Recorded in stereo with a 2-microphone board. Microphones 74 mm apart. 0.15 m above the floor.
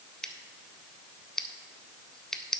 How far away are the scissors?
About 0.5 m.